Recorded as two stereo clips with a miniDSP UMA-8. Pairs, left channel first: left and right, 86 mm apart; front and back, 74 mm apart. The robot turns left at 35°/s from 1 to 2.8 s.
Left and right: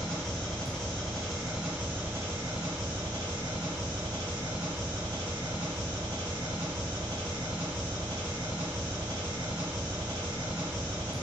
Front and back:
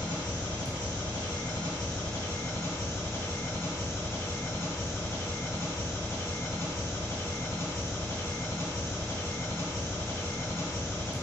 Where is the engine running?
10° left, 1.9 m; by 11.2 s 50° right, 1.9 m.